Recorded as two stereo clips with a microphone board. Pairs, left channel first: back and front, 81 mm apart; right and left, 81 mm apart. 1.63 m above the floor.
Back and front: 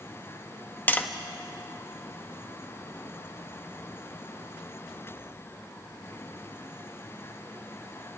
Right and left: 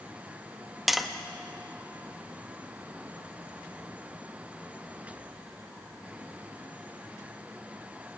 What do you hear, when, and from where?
0.9 s tapping: straight behind, 1.0 m